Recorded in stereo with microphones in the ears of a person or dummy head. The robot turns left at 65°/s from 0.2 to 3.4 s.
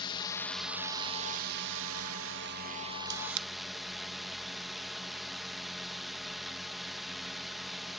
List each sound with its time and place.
0.0 s a drone: 25° left; by 8.0 s straight behind
3.0 s a camera shutter: 55° right (ahead or behind); by 3.5 s 70° right (ahead or behind)